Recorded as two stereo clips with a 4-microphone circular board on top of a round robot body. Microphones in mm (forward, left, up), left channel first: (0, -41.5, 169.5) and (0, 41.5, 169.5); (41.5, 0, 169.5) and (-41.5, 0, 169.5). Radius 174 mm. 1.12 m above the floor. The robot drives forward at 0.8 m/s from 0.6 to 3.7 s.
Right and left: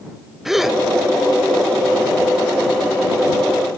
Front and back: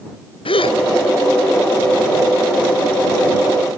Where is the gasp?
5° left.